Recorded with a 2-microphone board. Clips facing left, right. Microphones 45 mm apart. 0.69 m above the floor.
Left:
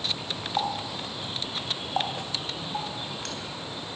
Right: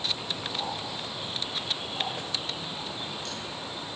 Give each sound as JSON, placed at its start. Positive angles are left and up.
{"t": 0.6, "sound": "a running tap", "side_deg": 65, "distance_m": 3.0}